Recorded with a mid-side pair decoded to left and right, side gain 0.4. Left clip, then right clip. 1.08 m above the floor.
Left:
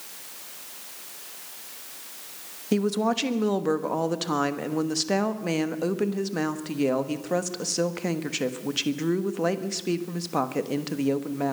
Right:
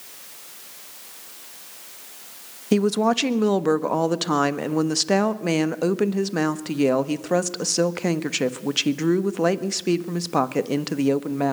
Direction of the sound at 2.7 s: 40° right.